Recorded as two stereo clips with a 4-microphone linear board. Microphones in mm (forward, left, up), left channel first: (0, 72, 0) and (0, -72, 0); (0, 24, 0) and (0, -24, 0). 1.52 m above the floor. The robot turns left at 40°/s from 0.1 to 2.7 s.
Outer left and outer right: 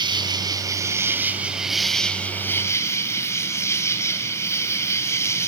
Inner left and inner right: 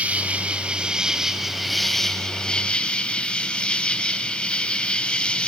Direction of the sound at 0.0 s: 110° right.